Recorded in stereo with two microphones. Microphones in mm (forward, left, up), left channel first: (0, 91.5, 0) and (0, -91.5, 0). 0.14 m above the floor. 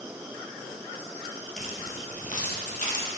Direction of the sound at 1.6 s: 45° left (ahead or behind).